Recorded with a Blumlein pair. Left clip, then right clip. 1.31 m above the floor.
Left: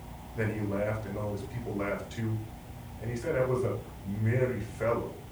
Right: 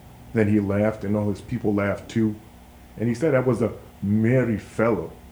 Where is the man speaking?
45° right, 0.9 m.